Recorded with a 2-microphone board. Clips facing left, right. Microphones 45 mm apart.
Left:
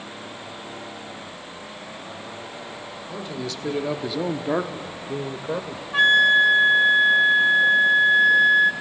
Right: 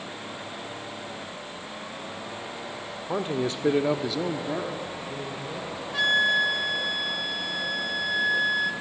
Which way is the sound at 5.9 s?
45° left (ahead or behind).